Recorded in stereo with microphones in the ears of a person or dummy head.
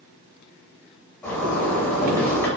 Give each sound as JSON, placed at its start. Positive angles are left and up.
{"t": 1.2, "sound": "a zipper", "side_deg": 15, "distance_m": 0.6}